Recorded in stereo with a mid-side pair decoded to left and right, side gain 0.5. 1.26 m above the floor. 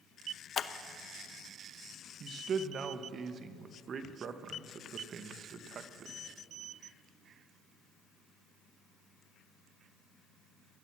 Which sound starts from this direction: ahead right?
A man speaking, at 2.2 s.